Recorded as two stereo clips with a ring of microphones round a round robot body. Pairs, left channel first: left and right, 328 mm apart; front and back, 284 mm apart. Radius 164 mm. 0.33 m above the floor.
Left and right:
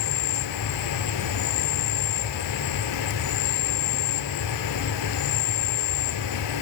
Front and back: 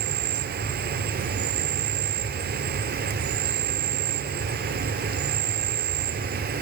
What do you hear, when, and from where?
0.0 s an insect: 125° left, 0.8 m